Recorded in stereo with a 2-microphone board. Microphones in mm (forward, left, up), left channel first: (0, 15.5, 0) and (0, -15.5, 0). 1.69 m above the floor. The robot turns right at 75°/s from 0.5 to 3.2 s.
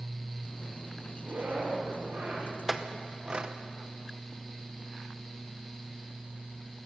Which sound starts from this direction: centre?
A clink, at 2.7 s.